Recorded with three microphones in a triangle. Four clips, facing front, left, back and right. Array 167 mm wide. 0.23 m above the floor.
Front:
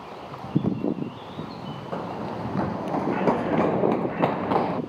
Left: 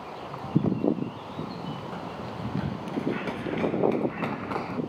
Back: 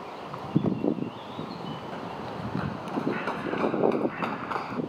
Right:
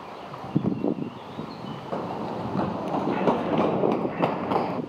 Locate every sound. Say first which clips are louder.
1.9 s running footsteps: right 6 dB, front 5 dB; 60° right; by 4.8 s 35° right